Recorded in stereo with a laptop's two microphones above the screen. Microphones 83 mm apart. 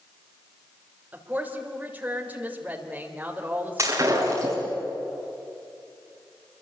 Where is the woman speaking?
20° right (ahead or behind), 3 m.